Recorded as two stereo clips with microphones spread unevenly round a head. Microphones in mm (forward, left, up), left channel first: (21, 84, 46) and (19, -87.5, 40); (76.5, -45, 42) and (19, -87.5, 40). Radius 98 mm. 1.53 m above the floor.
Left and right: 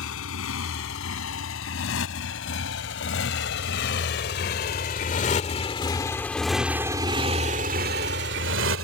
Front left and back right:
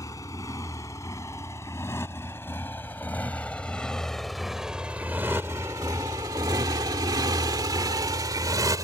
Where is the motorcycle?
110° left; by 8.8 s 110° right.